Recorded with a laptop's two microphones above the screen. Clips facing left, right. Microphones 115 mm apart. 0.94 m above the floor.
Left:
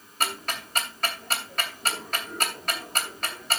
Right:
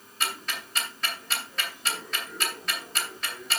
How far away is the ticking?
About 3 m.